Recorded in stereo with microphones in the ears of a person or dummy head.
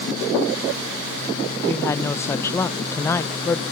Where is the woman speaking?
15° left (ahead or behind), 0.8 m.